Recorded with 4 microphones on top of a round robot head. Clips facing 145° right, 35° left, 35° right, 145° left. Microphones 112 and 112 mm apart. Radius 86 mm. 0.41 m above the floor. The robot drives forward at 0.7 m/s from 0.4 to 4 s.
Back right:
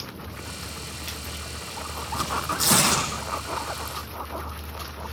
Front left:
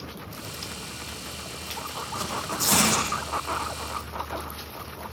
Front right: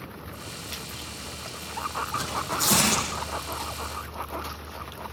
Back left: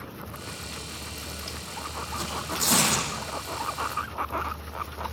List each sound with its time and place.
2.1 s tearing paper: 120° right, 9 m; by 3.1 s 125° right, 9.5 m